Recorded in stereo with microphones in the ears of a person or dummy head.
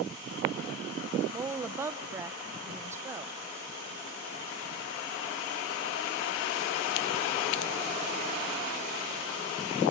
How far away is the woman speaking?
About 0.7 m.